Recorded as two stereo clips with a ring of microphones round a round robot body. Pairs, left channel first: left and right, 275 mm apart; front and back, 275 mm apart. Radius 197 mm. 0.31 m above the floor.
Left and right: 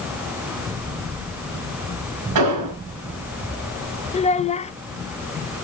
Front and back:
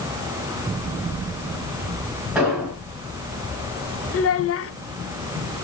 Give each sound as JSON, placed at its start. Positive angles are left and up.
{"t": 2.4, "sound": "an explosion", "azimuth_deg": -90, "distance_m": 4.5}
{"t": 4.1, "sound": "a child speaking", "azimuth_deg": 25, "distance_m": 0.9}